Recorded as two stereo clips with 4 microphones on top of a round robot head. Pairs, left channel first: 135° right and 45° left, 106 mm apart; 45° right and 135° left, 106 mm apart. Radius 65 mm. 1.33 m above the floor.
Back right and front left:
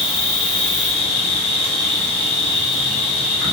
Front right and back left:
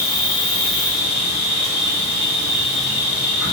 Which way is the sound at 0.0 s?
65° right.